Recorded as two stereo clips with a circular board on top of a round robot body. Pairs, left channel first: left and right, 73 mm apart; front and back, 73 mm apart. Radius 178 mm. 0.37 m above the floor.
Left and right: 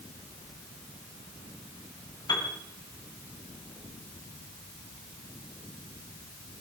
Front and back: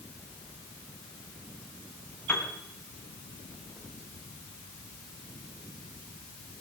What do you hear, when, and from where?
2.3 s a piano: 65° left, 2.5 m